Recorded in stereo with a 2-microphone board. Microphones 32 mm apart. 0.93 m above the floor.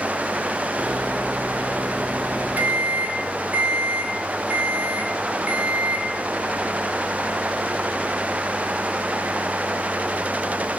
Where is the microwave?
75° right (ahead or behind), 1.8 m.